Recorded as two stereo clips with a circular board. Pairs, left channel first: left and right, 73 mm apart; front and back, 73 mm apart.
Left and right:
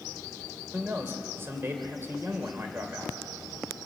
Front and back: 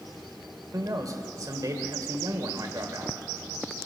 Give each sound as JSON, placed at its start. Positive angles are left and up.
{"t": 0.7, "sound": "a man speaking", "azimuth_deg": -145, "distance_m": 2.5}